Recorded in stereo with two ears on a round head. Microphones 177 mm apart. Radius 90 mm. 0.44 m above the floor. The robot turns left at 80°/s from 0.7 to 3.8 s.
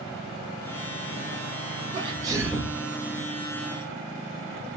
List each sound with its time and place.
1.9 s a sneeze: 115° right, 1.1 m; by 2.8 s 175° left, 1.1 m